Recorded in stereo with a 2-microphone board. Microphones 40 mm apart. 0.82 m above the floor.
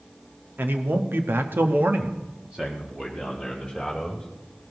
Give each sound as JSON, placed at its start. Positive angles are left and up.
{"t": 0.6, "sound": "a man speaking", "side_deg": -55, "distance_m": 1.4}